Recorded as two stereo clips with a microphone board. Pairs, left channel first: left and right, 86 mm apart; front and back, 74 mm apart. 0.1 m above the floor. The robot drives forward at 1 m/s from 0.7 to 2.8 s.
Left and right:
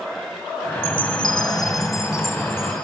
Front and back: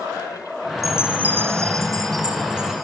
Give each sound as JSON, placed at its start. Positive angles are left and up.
{"t": 0.8, "sound": "a chime", "azimuth_deg": 90, "distance_m": 1.0}